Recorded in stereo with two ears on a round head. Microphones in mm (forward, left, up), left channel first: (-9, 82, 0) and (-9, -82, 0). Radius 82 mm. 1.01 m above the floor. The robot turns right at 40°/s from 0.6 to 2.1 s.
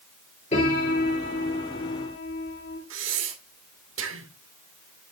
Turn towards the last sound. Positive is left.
turn(degrees=-80)